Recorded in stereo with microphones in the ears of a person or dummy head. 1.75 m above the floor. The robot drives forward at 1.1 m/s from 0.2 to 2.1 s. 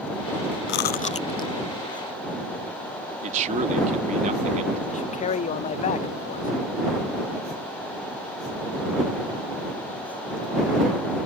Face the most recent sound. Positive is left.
turn(degrees=40)  # may be behind; listen again after turning